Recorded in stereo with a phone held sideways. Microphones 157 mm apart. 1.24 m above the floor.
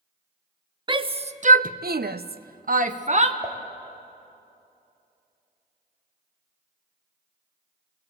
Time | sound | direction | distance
0.9 | a shout | 30° right (ahead or behind) | 0.8 m
3.4 | dishes clattering | 20° right (ahead or behind) | 1.8 m